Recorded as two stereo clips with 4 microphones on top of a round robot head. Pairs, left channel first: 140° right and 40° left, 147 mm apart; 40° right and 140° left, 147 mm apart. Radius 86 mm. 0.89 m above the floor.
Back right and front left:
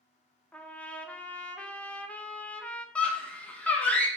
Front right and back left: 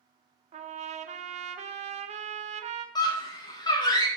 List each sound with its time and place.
0.5 s a trumpet: 145° left, 0.7 m
3.0 s a scream: 65° right, 0.9 m